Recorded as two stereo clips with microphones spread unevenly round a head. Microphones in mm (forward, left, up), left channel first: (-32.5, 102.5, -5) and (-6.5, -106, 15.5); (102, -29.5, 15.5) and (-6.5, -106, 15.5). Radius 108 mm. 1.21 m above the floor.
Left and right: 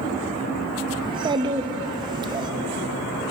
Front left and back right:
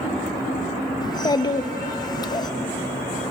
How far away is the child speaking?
About 0.6 m.